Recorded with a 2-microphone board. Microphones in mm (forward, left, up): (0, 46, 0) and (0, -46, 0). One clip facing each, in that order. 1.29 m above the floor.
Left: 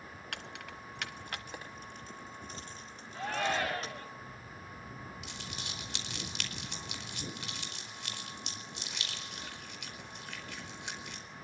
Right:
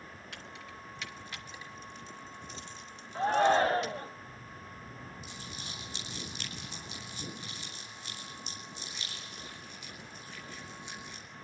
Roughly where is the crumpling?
Left.